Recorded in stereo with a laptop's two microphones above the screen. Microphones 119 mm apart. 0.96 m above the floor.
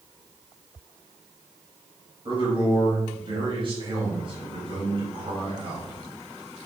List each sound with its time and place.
2.2 s a man speaking: 40° right (ahead or behind), 4.5 m